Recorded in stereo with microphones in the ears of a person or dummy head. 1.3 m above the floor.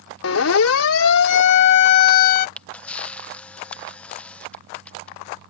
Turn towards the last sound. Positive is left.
turn(degrees=5)  # may be behind; listen again after turning